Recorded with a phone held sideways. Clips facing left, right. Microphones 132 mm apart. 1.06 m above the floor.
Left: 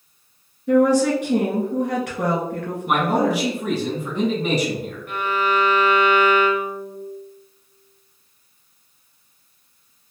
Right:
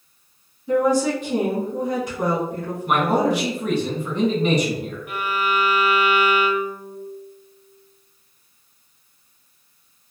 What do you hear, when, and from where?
0.7 s a woman speaking: 65° left (ahead or behind), 1.5 m
2.9 s a man speaking: 5° left (ahead or behind), 1.6 m
5.1 s a violin: 10° right (ahead or behind), 0.5 m